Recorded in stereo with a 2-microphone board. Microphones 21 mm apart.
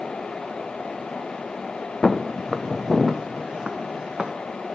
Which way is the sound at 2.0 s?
10° left (ahead or behind).